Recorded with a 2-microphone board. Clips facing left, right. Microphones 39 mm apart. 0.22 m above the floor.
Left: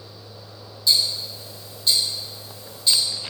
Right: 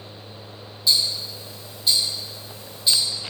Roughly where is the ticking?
Centre.